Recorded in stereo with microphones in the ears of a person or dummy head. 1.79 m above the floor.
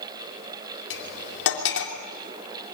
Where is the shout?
No shout in this recording.